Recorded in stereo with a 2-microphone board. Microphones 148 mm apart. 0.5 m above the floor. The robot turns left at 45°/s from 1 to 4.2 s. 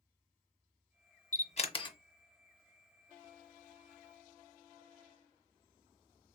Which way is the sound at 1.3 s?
55° left (ahead or behind).